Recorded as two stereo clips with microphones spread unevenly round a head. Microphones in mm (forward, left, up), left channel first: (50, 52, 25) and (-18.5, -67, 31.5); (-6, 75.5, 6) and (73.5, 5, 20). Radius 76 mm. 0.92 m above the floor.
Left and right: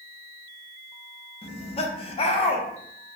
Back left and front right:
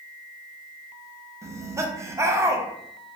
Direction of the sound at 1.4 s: 25° left.